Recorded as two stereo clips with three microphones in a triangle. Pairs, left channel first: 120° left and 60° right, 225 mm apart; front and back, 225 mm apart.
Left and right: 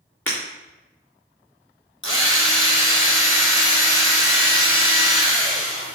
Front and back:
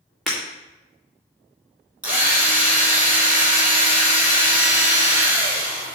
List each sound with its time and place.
0.3 s breaking glass: 90° left, 3.5 m
2.0 s a drill: 100° left, 4 m